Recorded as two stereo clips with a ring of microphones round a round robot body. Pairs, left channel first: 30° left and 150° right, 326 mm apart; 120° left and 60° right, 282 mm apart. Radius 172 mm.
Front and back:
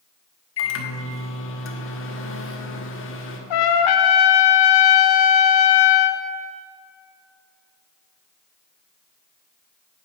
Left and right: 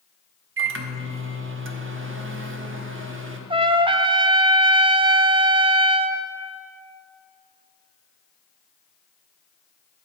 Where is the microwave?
20° right, 1.1 m.